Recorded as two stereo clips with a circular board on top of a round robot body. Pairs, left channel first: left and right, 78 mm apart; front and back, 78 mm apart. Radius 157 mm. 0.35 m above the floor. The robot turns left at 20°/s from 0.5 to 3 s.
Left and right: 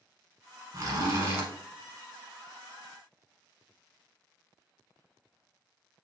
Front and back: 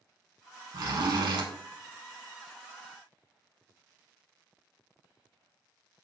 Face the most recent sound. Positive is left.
turn(degrees=175)